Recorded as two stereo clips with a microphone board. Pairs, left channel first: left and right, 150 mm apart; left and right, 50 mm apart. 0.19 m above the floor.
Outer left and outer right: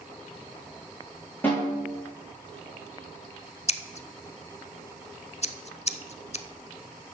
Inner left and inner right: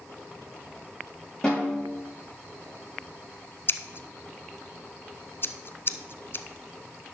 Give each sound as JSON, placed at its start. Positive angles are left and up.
{"t": 1.4, "sound": "a snare drum", "side_deg": 15, "distance_m": 5.5}
{"t": 3.7, "sound": "scissors", "side_deg": 45, "distance_m": 0.5}